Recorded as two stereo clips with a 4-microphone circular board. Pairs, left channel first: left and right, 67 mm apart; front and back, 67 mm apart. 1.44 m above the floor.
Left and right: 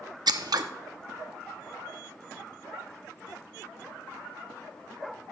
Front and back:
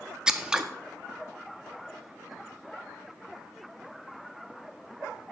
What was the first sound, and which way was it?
Scissors, 100° right.